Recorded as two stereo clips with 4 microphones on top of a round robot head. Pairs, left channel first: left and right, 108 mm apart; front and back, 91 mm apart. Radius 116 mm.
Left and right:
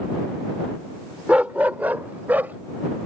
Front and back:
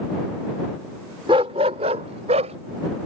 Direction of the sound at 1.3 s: 170° right.